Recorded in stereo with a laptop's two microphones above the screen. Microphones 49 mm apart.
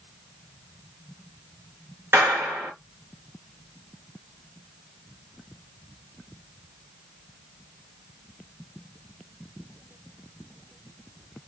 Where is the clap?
50° right (ahead or behind), 2 m.